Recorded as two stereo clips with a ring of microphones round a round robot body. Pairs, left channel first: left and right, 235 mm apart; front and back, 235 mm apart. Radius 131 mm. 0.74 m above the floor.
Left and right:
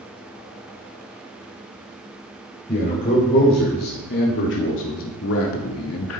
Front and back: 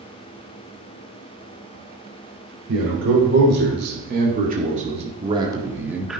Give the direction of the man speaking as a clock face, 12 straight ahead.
7 o'clock.